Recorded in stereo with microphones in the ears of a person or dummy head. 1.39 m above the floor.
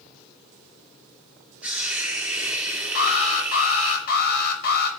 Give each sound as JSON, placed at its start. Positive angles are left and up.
{"t": 1.6, "sound": "a hiss", "side_deg": -15, "distance_m": 6.5}
{"t": 3.0, "sound": "an alarm", "side_deg": 55, "distance_m": 5.0}